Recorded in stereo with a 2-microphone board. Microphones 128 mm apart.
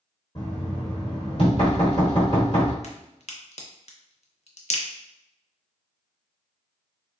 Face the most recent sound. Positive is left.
turn(degrees=55)  # may be behind; listen again after turning